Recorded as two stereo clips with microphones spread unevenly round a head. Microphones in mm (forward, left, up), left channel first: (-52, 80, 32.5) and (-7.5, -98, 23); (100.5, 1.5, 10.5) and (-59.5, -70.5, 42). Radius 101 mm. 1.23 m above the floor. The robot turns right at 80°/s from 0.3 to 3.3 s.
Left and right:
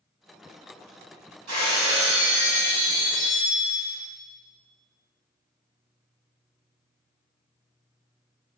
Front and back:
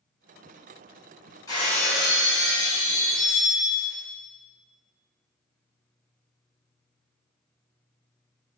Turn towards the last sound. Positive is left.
turn(degrees=95)